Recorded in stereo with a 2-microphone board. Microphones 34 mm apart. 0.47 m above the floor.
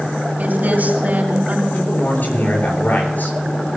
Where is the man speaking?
65° left (ahead or behind), 7 m.